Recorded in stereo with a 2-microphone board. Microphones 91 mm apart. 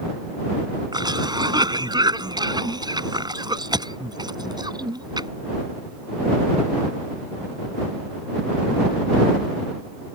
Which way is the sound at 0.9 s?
50° right (ahead or behind).